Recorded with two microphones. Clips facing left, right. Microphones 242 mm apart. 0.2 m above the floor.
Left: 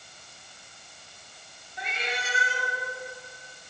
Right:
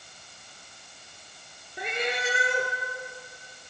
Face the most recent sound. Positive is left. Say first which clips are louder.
# right 6 dB
turn(degrees=-60)  # may be behind; listen again after turning